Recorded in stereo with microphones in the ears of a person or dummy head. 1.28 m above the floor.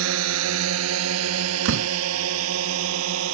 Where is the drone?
75° right (ahead or behind).